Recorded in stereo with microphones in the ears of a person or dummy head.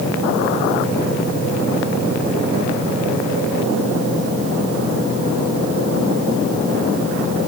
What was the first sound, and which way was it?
Only background noise.